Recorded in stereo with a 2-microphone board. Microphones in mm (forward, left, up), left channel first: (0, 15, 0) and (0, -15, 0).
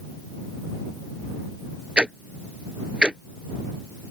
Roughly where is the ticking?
Right.